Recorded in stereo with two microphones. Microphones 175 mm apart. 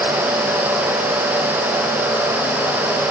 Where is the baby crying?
No baby crying in this recording.